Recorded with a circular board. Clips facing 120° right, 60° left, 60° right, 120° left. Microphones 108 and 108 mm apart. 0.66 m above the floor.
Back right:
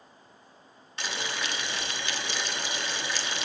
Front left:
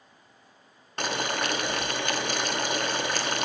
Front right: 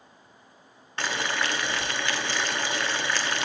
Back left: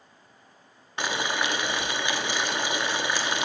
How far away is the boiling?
About 0.7 m.